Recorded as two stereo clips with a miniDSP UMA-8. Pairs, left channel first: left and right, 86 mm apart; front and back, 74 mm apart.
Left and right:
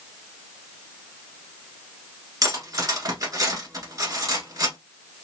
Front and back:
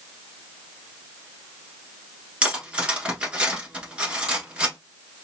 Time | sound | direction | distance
2.4 | cutlery clinking | 110° right | 1.1 m